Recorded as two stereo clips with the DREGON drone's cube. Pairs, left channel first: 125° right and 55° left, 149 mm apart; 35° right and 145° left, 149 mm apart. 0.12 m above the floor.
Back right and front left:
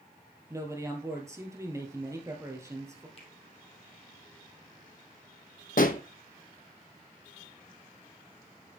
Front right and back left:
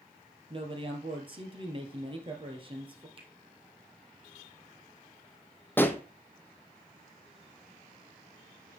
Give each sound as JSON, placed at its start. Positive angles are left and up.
{"t": 0.5, "sound": "a man speaking", "azimuth_deg": 115, "distance_m": 1.7}
{"t": 3.2, "sound": "a finger snap", "azimuth_deg": -165, "distance_m": 2.0}
{"t": 5.8, "sound": "a pop", "azimuth_deg": -110, "distance_m": 0.7}